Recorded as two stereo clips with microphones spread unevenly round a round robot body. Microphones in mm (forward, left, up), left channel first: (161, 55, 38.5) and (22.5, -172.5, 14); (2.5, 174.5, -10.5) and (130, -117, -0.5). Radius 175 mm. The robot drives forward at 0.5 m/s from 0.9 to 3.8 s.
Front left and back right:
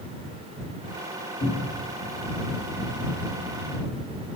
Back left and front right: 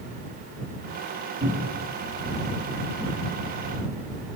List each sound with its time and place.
1.4 s a cupboard door: straight ahead, 5.5 m